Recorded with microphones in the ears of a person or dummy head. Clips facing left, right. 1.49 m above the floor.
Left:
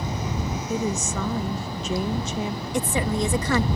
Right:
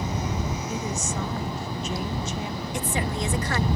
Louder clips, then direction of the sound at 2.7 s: Left 5 dB; 80° left.